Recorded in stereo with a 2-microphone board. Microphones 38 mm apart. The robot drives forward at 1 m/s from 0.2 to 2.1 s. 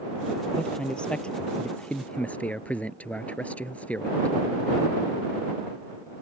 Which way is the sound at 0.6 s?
25° left (ahead or behind).